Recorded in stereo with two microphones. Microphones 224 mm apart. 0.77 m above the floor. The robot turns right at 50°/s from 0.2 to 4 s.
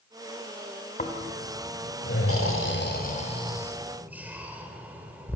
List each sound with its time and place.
1.0 s snoring: 35° left (ahead or behind), 3 m; by 5.4 s 5° right (ahead or behind), 3 m